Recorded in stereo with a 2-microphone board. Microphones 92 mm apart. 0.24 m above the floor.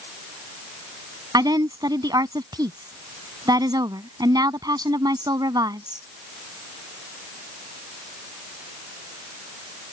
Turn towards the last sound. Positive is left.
turn(degrees=-55)  # may be behind; listen again after turning